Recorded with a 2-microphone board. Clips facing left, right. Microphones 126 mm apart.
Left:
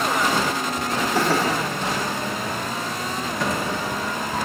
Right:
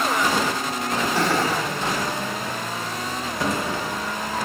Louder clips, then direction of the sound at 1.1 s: Left 2 dB; 5° left (ahead or behind).